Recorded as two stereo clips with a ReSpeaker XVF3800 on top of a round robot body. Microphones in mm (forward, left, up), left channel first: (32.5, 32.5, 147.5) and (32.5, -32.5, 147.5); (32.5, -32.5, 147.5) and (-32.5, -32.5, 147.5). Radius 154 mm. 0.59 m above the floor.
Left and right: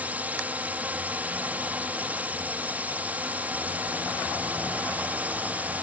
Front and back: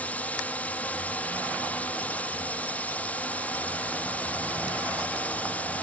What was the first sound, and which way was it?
A drone, 45° right.